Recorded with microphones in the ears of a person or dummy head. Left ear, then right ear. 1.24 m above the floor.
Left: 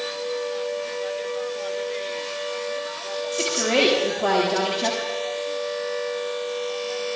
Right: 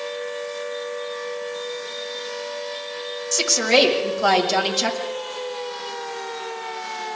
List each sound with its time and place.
3.3 s a woman speaking: 85° right, 7 m